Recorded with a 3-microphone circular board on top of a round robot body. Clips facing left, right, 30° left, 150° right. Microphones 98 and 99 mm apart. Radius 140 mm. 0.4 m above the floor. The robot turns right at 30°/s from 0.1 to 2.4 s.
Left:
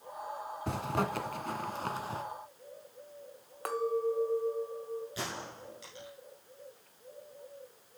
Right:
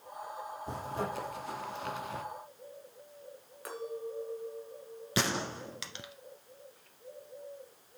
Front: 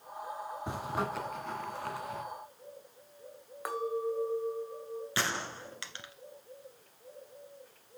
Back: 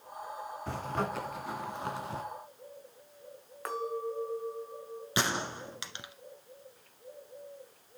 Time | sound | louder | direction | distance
0.7 | a zipper | left 4 dB, back 1 dB | 105° left | 1.5 m
3.6 | a clink | left 9 dB, front 2 dB | 110° left | 2 m
5.2 | a gunshot | right 7 dB, back 4 dB | 75° right | 1.2 m